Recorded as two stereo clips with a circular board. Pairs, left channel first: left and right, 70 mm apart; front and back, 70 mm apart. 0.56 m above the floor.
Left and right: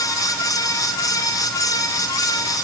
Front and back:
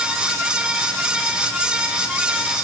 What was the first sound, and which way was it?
Only background noise.